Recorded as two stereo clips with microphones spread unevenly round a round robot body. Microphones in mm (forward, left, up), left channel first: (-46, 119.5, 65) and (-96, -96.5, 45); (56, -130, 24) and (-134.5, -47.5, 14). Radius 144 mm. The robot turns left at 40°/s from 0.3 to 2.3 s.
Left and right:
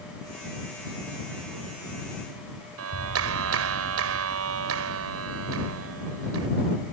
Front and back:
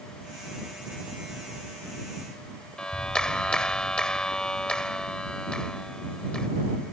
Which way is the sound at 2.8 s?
110° right.